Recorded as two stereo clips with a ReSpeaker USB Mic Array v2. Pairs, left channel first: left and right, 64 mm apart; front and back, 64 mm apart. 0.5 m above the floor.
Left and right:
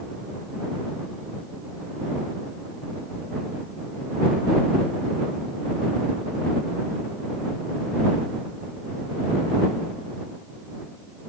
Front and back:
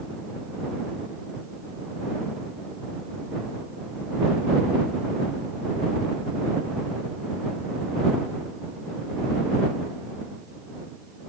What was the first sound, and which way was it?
Only background noise.